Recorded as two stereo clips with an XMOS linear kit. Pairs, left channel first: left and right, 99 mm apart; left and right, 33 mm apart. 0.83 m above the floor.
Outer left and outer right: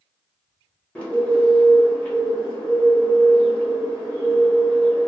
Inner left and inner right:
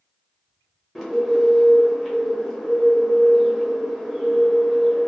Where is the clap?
I don't hear a clap.